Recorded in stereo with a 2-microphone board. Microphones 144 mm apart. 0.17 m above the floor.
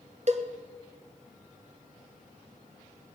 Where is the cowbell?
55° right (ahead or behind), 1.1 m.